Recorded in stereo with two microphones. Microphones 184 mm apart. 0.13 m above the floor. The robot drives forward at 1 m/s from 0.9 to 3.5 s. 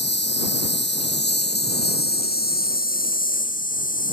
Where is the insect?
75° left (ahead or behind); by 4.1 s 50° left (ahead or behind).